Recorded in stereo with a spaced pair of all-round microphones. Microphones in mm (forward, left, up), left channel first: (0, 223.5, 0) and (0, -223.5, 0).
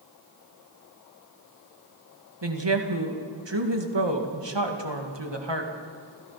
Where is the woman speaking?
70° right (ahead or behind), 2 m.